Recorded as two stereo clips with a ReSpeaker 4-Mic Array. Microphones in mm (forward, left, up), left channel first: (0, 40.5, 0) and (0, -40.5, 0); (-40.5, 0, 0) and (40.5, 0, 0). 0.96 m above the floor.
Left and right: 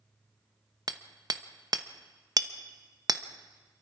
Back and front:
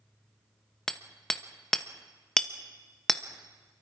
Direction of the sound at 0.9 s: 100° right.